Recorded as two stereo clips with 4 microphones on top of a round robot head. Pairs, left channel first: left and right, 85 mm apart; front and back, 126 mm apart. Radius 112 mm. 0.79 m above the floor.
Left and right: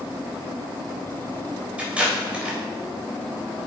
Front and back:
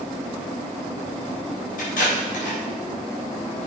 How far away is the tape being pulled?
About 3.5 m.